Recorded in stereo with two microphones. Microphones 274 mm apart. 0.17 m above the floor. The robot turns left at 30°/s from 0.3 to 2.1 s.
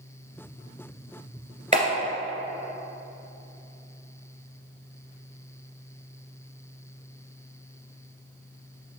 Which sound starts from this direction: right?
A clap, at 1.7 s.